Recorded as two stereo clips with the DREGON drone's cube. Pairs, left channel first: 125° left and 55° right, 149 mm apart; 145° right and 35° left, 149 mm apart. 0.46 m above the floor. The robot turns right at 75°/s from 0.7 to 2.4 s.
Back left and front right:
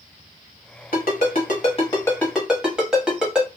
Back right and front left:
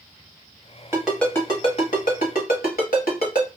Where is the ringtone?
110° left, 1.2 m; by 3.5 s 140° right, 1.2 m.